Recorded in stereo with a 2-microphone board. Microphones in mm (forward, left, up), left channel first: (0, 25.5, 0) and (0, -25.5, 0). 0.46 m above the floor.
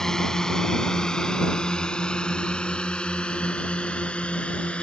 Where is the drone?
10° left (ahead or behind); by 4.8 s 25° left (ahead or behind).